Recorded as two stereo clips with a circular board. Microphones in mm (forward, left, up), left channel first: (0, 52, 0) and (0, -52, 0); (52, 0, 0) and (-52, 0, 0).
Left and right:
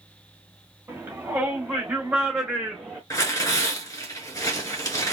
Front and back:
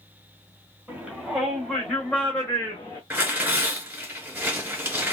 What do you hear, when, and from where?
0.9 s a shout: 120° right, 1.6 m; by 3.0 s straight ahead, 1.7 m
3.1 s tearing paper: 115° left, 1.5 m